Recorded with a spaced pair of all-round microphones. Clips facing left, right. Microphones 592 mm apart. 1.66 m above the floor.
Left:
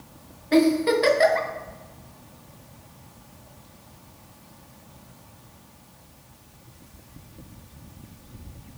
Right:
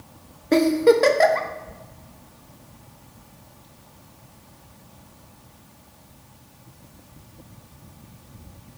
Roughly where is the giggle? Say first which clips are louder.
Right 3 dB; right.